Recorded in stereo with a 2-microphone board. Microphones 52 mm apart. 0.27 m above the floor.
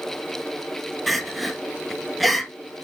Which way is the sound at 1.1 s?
Centre (ahead or behind).